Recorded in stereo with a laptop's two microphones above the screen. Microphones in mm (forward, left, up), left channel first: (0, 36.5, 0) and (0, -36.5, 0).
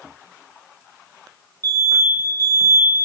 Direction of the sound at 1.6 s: 65° right (ahead or behind).